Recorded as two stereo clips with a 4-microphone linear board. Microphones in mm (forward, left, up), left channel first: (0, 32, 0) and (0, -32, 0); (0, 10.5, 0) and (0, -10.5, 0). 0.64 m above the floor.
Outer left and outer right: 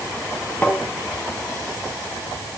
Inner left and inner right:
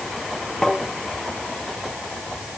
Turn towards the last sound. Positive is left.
turn(degrees=20)  # may be behind; listen again after turning